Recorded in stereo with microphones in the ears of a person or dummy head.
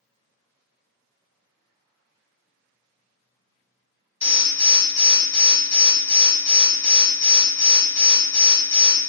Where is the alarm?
15° left (ahead or behind), 0.9 m.